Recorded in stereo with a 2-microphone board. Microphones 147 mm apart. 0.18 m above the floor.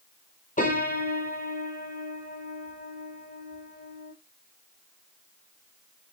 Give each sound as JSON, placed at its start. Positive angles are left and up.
{"t": 0.6, "sound": "a piano", "side_deg": 70, "distance_m": 0.9}